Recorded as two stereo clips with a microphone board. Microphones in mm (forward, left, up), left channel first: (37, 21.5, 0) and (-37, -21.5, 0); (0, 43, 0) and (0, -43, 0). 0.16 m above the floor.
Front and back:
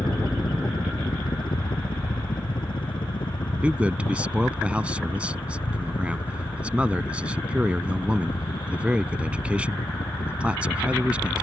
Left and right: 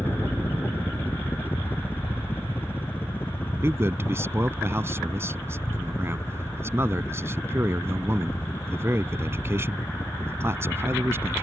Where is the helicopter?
25° left.